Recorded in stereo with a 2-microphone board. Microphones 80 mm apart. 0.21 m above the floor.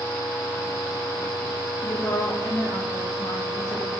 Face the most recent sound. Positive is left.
turn(degrees=50)  # may be behind; listen again after turning